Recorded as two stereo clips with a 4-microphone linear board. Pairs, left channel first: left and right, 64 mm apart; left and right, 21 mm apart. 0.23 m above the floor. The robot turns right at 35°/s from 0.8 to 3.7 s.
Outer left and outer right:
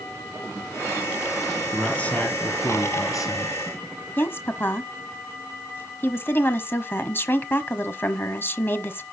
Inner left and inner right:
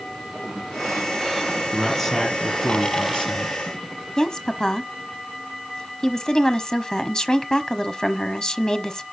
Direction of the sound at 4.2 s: 35° left (ahead or behind).